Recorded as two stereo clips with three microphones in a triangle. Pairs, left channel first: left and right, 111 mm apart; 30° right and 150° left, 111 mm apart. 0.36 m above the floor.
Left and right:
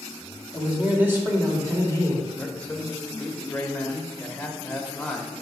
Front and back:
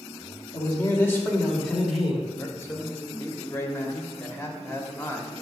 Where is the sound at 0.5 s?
10° right, 1.6 m; by 2.3 s 135° right, 1.8 m.